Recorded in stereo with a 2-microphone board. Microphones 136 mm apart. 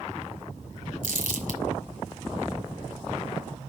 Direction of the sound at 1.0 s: 75° right (ahead or behind).